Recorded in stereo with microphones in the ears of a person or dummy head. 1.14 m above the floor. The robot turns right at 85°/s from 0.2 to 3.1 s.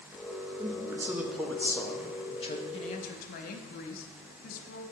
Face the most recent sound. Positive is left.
turn(degrees=65)